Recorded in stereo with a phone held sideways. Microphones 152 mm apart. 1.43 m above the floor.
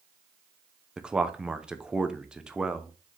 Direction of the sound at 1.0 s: 5° right (ahead or behind).